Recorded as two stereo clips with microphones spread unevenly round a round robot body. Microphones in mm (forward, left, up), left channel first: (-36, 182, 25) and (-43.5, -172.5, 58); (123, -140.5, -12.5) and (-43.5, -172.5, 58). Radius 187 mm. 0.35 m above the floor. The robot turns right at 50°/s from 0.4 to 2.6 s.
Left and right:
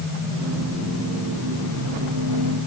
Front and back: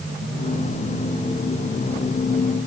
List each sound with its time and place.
Only background noise.